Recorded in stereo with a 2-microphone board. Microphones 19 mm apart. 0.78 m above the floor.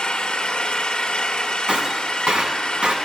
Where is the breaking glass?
65° right (ahead or behind), 2.5 m.